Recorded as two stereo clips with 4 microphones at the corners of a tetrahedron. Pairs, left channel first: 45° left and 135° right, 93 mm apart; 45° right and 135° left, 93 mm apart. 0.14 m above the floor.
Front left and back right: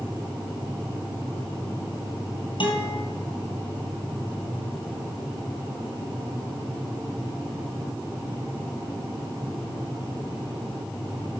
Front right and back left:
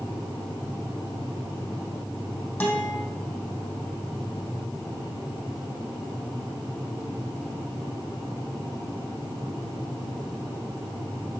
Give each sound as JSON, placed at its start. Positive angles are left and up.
{"t": 2.6, "sound": "a guitar", "azimuth_deg": 30, "distance_m": 2.5}